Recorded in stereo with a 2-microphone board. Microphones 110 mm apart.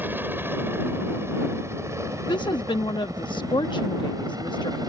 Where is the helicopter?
20° right (ahead or behind); by 4.9 s 35° right (ahead or behind).